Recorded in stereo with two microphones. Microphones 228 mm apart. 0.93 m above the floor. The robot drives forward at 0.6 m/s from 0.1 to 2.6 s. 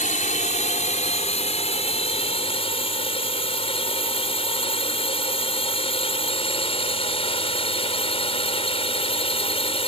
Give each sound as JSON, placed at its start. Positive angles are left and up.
{"t": 0.0, "sound": "a drone", "side_deg": 35}